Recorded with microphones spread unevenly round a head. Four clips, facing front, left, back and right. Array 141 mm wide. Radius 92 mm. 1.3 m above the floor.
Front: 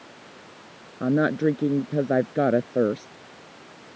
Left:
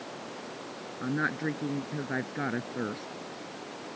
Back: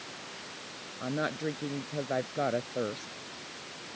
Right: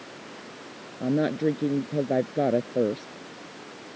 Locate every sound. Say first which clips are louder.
1.0 s a woman speaking: right 7 dB, front 11 dB; 10° right